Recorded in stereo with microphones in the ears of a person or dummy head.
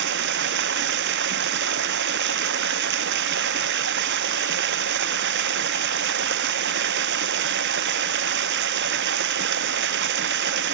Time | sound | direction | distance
0.0 | running water | 60° right (ahead or behind) | ?